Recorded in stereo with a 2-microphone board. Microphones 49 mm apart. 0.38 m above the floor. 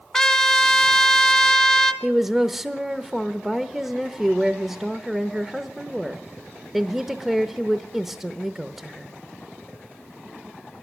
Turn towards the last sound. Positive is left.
turn(degrees=-5)  # may be behind; listen again after turning